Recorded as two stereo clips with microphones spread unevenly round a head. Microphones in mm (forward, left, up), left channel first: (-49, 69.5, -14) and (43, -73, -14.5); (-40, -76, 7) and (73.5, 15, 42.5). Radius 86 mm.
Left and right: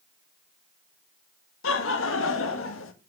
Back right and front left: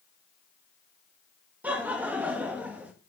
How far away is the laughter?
About 2 m.